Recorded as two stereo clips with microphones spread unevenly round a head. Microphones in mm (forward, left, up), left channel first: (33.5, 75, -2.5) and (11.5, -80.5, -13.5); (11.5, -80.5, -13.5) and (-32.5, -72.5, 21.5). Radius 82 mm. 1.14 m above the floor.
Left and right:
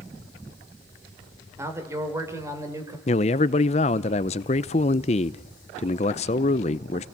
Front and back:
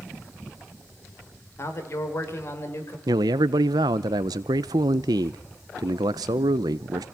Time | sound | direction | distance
1.6 | a man speaking | 25° right | 4.5 m
3.1 | a man speaking | 130° left | 0.6 m